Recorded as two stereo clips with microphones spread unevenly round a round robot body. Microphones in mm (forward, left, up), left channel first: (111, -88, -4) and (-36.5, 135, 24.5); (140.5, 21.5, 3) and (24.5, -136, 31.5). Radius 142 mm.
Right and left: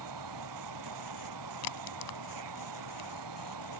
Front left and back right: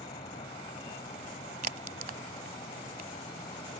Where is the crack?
85° right.